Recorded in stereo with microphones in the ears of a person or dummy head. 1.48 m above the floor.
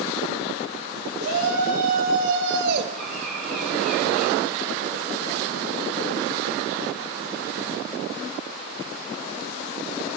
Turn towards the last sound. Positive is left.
turn(degrees=5)  # may be behind; listen again after turning